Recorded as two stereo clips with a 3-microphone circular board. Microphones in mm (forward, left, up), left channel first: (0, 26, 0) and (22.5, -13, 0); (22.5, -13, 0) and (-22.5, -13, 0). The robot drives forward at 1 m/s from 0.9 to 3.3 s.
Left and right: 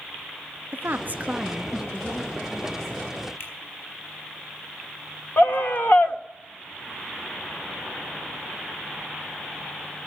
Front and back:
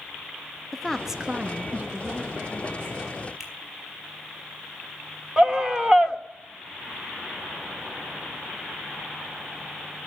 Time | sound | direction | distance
0.7 | a woman speaking | 85° right | 0.7 m
3.4 | a finger snap | 95° left | 5 m
5.4 | a scream | 110° left | 1.2 m